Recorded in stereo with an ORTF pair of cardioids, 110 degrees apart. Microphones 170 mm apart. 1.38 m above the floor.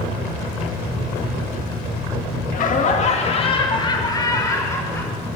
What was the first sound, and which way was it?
Laughter, 55° left.